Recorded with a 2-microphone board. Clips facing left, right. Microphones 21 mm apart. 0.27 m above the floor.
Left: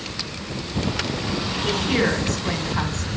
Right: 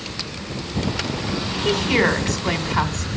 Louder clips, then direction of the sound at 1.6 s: Right 3 dB; 25° right (ahead or behind).